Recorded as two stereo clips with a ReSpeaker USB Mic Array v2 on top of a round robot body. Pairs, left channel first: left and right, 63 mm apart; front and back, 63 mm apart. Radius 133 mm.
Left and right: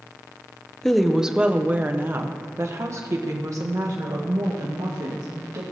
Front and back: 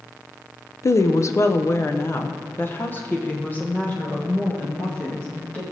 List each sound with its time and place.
0.8 s a woman speaking: 10° left, 0.8 m; by 5.6 s 70° right, 2.5 m